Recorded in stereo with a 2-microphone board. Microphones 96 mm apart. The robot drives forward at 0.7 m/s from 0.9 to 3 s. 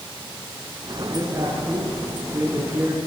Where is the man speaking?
25° right (ahead or behind), 6.5 m; by 3.0 s 20° right (ahead or behind), 7.5 m.